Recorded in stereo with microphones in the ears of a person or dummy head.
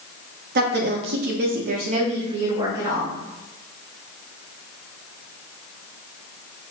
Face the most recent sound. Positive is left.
turn(degrees=-10)  # may be behind; listen again after turning